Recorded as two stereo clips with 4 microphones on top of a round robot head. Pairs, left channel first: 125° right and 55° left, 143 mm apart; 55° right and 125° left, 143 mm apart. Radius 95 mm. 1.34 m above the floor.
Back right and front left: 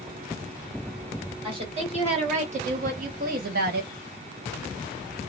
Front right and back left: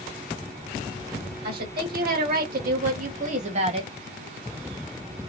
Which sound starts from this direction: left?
A woman speaking, at 1.4 s.